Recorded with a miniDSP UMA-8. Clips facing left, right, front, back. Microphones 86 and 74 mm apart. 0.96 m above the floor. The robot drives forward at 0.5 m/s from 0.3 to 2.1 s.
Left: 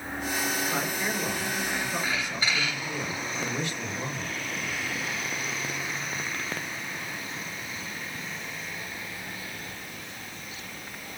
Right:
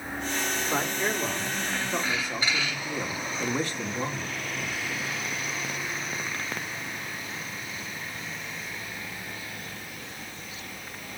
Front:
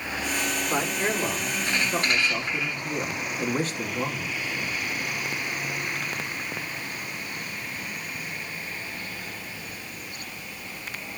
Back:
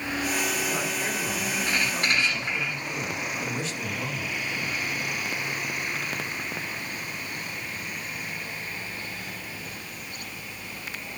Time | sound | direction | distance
0.7 | a man speaking | 30° right | 3 m